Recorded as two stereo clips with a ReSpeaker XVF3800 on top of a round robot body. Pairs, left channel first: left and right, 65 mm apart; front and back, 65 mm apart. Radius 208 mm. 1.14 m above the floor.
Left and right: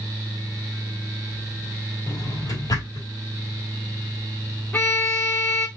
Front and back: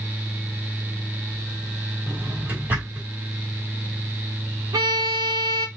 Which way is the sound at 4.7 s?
155° left.